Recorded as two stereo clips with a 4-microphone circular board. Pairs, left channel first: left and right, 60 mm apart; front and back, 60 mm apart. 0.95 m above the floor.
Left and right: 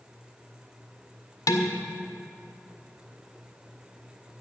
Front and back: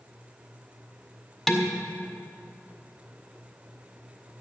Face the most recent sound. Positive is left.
turn(degrees=85)